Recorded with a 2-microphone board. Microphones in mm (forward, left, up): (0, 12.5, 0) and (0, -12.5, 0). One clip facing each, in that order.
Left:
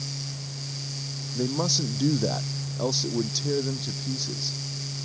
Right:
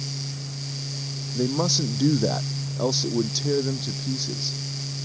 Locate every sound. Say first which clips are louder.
1.4 s a man speaking: right 2 dB; 10° right (ahead or behind)